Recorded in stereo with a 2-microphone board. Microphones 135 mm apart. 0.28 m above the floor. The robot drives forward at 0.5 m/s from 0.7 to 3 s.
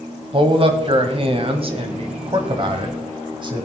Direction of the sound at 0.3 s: 40° right (ahead or behind).